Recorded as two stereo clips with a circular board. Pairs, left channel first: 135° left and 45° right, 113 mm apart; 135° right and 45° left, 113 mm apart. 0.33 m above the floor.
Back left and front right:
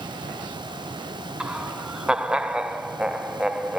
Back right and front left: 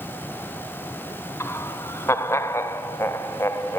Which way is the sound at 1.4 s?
115° right.